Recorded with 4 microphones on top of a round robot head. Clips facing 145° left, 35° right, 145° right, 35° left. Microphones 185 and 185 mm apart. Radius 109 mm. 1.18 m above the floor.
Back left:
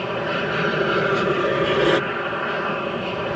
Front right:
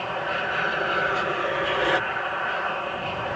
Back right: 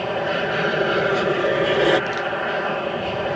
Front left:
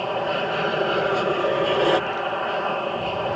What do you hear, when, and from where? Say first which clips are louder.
0.0 s an aircraft: back left 5 dB, back right 2 dB; 145° left